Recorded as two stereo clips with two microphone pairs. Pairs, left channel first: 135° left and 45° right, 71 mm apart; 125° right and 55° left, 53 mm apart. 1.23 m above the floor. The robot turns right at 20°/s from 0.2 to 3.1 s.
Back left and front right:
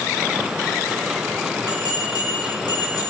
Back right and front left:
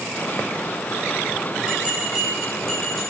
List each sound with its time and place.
1.7 s a bell: 130° left, 9 m; by 3.0 s 155° left, 9 m